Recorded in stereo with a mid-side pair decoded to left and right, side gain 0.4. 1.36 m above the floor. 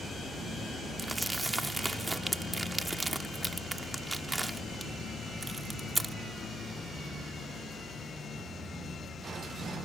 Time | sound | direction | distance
1.0 | crumpling | 15° right | ?